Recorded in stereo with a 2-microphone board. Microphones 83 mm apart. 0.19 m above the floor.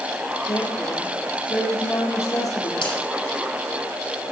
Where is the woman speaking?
40° left (ahead or behind), 4 m.